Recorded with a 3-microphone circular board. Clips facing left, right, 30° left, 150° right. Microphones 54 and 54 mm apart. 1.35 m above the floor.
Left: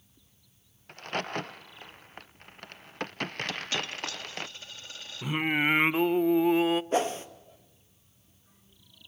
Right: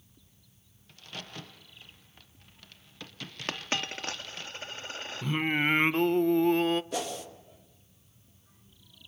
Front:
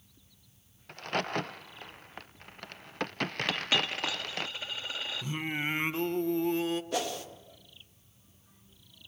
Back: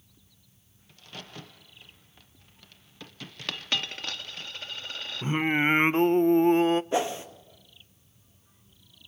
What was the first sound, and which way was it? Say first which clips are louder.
A crack: left 11 dB, front 13 dB; 55° left.